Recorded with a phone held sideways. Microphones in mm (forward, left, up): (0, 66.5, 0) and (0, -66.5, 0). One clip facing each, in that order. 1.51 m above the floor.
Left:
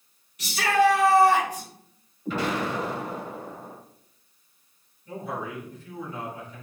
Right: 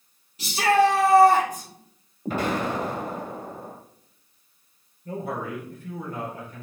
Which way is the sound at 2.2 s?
45° right (ahead or behind).